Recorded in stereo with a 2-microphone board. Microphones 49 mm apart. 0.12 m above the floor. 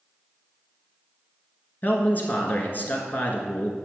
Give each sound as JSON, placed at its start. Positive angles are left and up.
{"t": 1.8, "sound": "a man speaking", "side_deg": 40, "distance_m": 1.3}